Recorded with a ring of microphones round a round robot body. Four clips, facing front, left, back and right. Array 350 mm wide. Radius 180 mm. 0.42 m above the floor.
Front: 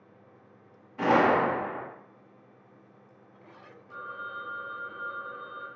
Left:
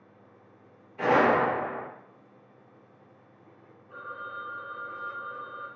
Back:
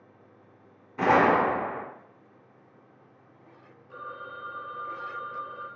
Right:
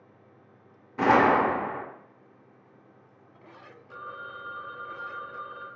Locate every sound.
1.0 s a gunshot: 115° right, 0.6 m
3.9 s a phone ringing: 85° right, 0.9 m